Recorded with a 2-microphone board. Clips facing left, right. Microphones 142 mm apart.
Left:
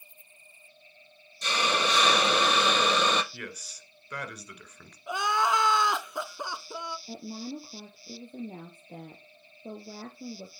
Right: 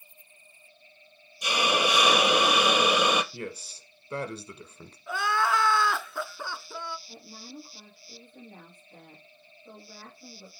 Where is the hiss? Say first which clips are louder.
Right 2 dB; 10° right (ahead or behind), 1.0 m.